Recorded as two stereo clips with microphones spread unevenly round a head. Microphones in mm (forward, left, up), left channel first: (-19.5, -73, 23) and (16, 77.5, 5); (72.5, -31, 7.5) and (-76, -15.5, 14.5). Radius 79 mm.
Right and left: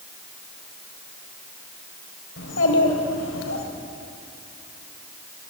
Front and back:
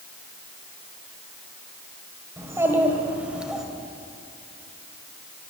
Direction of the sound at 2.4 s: 115° right.